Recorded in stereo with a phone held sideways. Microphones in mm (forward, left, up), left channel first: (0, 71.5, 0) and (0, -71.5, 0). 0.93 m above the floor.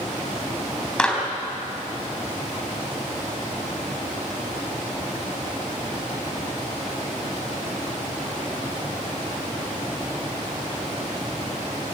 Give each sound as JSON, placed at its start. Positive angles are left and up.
{"t": 1.0, "sound": "a clap", "side_deg": 5, "distance_m": 4.5}